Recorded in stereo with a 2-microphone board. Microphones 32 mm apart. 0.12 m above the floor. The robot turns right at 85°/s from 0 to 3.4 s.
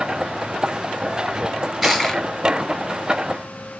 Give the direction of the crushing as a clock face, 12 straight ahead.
1 o'clock.